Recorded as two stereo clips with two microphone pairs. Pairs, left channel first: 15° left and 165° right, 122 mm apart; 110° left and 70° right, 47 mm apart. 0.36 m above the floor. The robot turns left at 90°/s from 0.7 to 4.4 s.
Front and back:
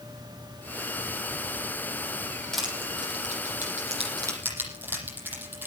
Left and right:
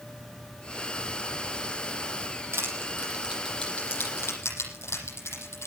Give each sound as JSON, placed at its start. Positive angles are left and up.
{"t": 2.5, "sound": "crushing", "azimuth_deg": -70, "distance_m": 8.5}